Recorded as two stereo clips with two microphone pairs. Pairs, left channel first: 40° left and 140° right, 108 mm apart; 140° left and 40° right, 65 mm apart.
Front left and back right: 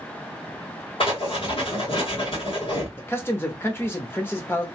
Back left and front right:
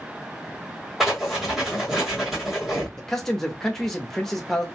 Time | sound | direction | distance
1.0 | writing | 45° left | 2.5 m
3.0 | a man speaking | 65° left | 0.8 m